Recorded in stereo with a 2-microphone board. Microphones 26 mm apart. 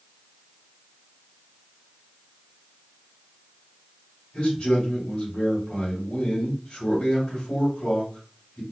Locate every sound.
4.3 s a man speaking: 50° left (ahead or behind), 2 m